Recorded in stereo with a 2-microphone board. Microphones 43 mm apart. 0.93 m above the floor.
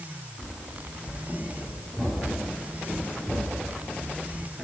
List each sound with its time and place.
0.4 s running footsteps: 10° left (ahead or behind), 6 m; by 4.6 s centre (ahead or behind), 4 m